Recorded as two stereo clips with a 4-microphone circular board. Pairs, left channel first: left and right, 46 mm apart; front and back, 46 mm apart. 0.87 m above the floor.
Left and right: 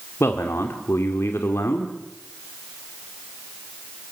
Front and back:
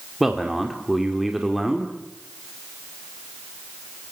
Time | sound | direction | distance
0.2 | a man speaking | 95° left | 2 m